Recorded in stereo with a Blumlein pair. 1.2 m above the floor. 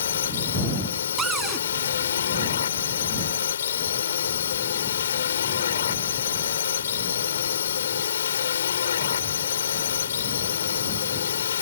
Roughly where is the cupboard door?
Ahead.